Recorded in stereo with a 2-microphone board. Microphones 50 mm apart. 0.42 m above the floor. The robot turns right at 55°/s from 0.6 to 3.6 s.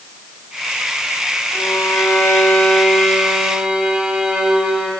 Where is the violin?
85° left, 3 m; by 4.9 s 160° right, 3 m.